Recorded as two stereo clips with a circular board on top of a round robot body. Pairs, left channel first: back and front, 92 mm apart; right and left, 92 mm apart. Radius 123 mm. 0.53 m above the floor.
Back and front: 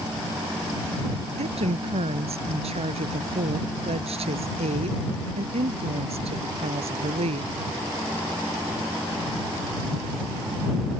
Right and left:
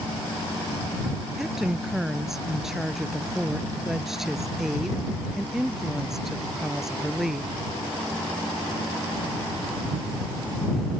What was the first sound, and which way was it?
A woman speaking, 5° left.